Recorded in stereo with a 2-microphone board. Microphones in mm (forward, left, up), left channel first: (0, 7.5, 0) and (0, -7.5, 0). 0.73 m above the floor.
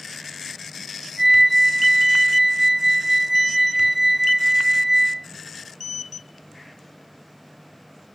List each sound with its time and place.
1.2 s a flute: 10° right (ahead or behind), 2.5 m